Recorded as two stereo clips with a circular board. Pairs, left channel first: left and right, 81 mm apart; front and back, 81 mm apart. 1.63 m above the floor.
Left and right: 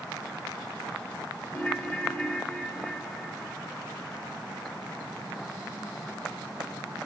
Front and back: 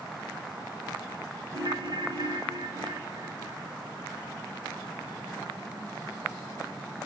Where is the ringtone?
165° left, 2.5 m.